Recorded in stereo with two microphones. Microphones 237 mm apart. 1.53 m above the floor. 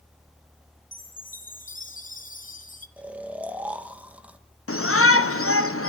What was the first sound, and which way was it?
A chime, 40° left (ahead or behind).